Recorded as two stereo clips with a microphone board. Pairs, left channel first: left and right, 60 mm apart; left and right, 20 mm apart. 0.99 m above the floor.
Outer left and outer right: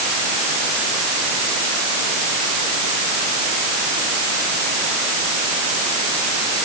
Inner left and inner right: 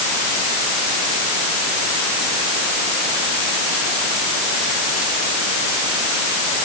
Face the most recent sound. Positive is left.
No sound to turn to.